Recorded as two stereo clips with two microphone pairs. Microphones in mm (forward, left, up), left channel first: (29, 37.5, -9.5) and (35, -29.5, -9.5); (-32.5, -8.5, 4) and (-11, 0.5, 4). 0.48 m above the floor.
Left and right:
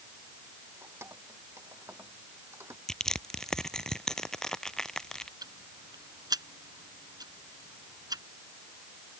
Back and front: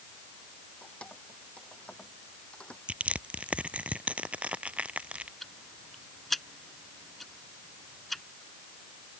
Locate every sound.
0.8 s keys jangling: 135° right
2.9 s crushing: 15° left
5.4 s ticking: 75° right